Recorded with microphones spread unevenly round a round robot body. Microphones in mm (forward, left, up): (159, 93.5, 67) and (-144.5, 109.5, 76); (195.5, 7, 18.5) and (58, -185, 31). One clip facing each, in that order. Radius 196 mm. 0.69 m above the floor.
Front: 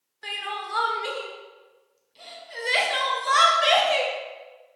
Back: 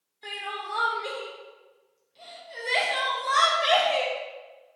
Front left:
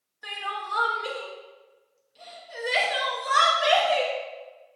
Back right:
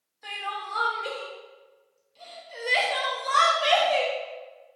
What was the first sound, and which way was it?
Crying, 10° left.